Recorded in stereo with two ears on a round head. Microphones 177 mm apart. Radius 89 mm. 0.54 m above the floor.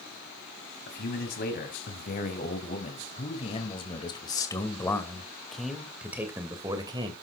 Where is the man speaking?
50° left (ahead or behind), 3.5 m; by 7.1 s 25° right (ahead or behind), 2 m.